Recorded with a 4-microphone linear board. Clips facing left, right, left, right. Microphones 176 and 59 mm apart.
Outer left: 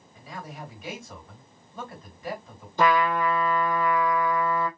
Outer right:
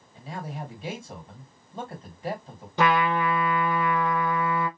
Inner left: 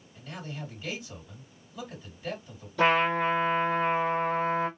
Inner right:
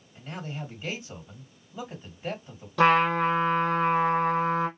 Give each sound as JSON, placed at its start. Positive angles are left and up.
{"t": 0.1, "sound": "a man speaking", "side_deg": -30, "distance_m": 2.0}
{"t": 2.8, "sound": "a trumpet", "side_deg": -75, "distance_m": 1.6}